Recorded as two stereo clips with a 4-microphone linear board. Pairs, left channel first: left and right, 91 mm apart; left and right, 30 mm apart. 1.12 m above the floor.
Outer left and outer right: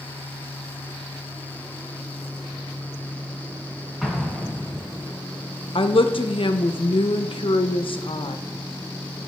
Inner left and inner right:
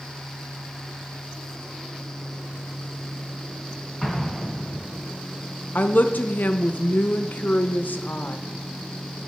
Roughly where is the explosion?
Centre.